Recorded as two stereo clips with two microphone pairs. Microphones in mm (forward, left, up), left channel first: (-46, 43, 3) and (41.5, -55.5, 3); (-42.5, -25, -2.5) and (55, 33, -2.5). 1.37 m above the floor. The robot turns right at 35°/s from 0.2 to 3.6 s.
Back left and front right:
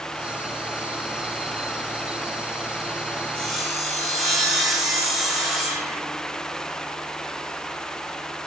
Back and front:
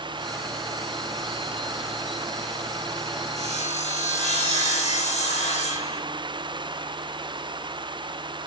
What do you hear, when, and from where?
3.4 s sawing: 145° right, 1.3 m; by 6.0 s 135° right, 1.3 m